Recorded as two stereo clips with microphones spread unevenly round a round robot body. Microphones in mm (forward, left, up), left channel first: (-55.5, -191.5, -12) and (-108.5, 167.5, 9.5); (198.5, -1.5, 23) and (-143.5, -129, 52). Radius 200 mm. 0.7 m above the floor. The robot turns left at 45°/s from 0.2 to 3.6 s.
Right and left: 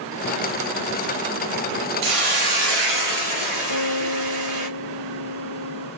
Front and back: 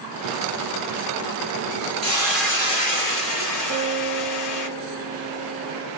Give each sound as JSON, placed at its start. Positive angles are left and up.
{"t": 2.0, "sound": "a hiss", "azimuth_deg": 125, "distance_m": 1.6}
{"t": 3.7, "sound": "a guitar", "azimuth_deg": 65, "distance_m": 2.5}